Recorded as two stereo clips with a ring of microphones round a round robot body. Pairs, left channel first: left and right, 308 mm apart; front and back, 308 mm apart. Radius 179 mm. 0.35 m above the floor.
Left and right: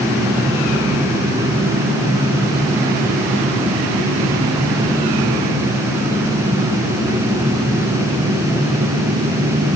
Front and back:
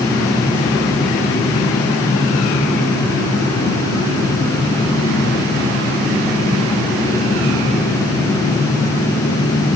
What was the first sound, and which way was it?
Only background noise.